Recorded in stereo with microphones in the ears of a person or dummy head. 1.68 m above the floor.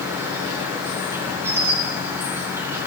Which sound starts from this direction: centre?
An insect, at 0.0 s.